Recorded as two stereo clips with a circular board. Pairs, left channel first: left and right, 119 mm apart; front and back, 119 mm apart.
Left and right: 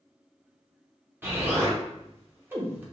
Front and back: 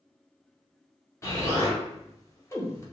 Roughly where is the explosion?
Ahead right.